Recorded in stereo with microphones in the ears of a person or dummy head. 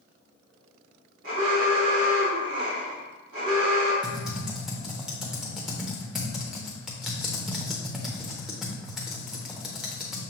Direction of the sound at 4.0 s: 10° right (ahead or behind).